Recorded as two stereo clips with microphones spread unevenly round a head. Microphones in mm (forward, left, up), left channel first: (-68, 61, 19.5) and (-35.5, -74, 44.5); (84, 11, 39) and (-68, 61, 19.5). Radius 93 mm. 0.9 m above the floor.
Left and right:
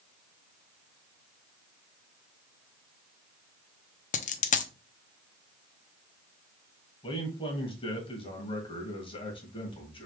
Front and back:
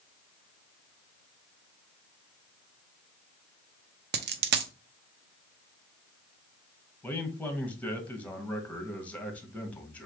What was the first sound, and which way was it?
A dropped coin, 140° left.